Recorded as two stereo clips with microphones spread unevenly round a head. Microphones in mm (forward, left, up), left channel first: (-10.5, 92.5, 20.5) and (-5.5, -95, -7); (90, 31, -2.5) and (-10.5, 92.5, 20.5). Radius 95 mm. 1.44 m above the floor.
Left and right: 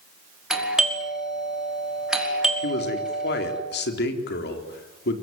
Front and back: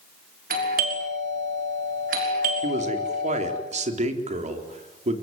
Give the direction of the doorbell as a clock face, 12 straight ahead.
6 o'clock.